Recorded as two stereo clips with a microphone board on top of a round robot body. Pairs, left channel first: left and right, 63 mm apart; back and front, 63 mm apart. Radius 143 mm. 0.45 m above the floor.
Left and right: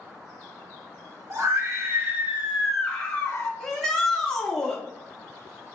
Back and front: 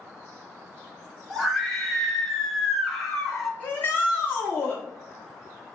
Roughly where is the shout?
Behind.